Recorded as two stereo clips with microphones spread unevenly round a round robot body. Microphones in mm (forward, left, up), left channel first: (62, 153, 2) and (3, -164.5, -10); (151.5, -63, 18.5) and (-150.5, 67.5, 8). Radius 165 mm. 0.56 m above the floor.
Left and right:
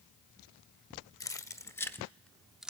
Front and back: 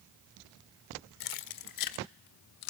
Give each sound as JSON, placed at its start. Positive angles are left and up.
{"t": 1.2, "sound": "keys jangling", "azimuth_deg": 0, "distance_m": 1.6}